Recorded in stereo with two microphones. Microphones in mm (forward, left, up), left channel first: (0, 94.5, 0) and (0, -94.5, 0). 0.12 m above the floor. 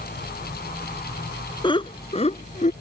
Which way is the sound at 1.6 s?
25° left (ahead or behind).